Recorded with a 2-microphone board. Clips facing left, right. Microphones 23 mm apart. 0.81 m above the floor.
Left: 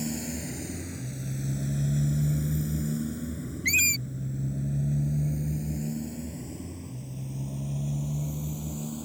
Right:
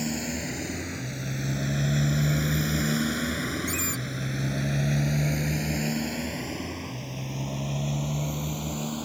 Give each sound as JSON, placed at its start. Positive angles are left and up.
{"t": 0.0, "sound": "a motorcycle", "side_deg": -30}
{"t": 3.6, "sound": "a squeak", "side_deg": 50}